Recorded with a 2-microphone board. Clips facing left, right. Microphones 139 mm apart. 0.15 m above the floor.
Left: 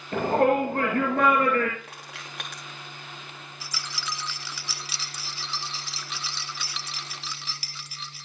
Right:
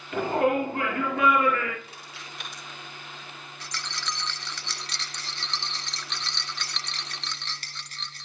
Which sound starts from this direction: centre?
A rattle, at 3.6 s.